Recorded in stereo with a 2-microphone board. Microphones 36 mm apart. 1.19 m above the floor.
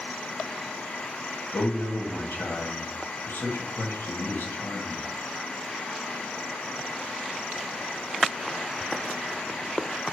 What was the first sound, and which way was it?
A man speaking, 80° left.